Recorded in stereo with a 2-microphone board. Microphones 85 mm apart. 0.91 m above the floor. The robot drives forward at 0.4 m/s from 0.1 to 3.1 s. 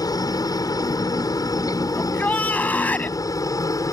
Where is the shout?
20° left (ahead or behind).